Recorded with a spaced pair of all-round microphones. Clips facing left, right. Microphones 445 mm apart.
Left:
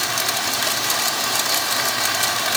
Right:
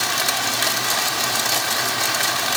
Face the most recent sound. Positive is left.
No sound to turn to.